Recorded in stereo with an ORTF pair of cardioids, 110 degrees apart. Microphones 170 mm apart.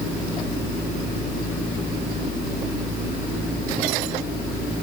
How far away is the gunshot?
I don't hear a gunshot.